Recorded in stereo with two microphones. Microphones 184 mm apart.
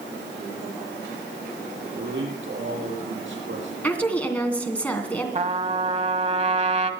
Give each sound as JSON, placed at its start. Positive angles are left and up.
{"t": 1.9, "sound": "a man speaking", "side_deg": -80, "distance_m": 6.0}
{"t": 3.8, "sound": "a woman speaking", "side_deg": 5, "distance_m": 2.5}
{"t": 5.3, "sound": "a trumpet", "side_deg": -35, "distance_m": 1.1}